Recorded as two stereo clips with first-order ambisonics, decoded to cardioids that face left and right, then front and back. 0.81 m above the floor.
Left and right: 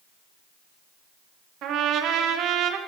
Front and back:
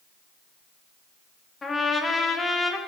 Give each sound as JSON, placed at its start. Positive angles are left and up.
{"t": 1.6, "sound": "a trumpet", "azimuth_deg": -70, "distance_m": 1.3}